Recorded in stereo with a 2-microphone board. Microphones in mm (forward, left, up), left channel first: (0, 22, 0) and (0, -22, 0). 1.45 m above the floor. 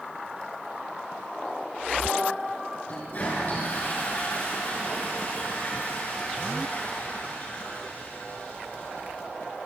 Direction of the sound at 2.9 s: 35° left (ahead or behind).